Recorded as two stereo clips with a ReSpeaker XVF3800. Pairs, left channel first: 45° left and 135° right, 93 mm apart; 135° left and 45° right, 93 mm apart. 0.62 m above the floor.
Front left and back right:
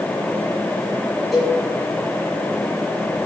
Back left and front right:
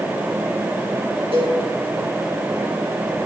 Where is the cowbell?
45° right, 4 m.